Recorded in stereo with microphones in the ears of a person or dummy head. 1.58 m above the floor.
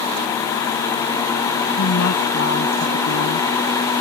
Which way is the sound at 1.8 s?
75° left (ahead or behind).